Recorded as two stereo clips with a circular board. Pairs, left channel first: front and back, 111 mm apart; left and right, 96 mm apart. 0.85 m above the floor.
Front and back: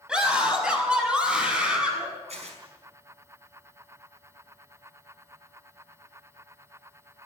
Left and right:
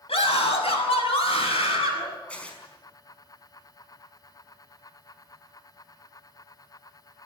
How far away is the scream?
About 6 m.